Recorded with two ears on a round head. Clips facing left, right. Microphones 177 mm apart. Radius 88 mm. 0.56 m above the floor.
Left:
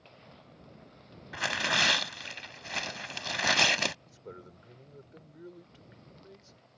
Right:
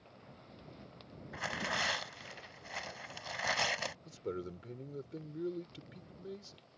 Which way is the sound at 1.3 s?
70° left (ahead or behind).